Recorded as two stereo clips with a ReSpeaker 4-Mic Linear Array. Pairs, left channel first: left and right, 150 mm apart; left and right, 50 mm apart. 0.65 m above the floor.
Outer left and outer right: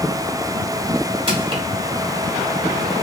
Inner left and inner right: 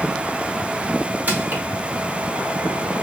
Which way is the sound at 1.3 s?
40° right (ahead or behind).